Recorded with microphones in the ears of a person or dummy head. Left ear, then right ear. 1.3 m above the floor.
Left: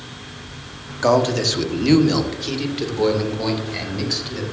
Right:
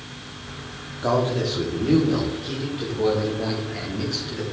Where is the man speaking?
60° left (ahead or behind), 1.3 m; by 4.4 s 45° left (ahead or behind), 3.5 m.